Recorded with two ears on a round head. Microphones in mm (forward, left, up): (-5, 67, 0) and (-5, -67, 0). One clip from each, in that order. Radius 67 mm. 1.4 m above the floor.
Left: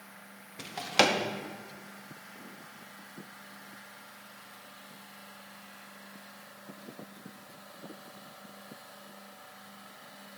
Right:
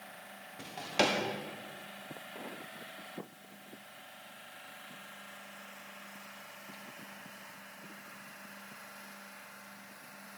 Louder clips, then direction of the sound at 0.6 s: Left 5 dB; 35° left (ahead or behind).